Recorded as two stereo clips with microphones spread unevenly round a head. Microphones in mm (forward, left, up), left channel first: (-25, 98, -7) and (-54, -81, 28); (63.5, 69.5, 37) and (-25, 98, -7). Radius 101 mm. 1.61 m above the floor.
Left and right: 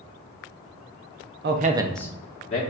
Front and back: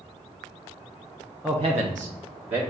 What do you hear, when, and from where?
1.4 s a man speaking: 95° right, 0.7 m; by 2.6 s 140° left, 1.4 m